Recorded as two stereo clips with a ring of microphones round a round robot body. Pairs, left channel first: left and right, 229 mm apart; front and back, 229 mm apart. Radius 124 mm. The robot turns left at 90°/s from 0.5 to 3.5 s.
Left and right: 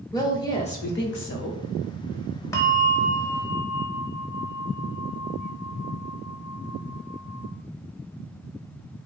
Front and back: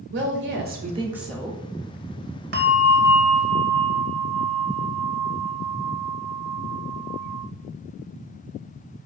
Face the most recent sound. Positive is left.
turn(degrees=75)